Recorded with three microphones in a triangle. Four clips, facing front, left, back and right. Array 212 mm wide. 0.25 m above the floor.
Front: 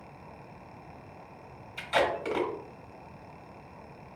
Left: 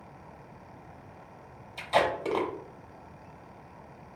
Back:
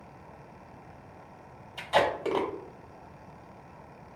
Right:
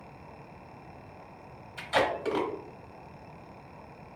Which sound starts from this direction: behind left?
Tape being pulled, at 1.8 s.